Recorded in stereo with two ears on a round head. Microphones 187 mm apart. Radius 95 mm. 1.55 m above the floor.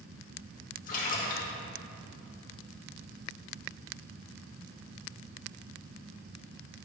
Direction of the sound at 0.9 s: 40° left (ahead or behind).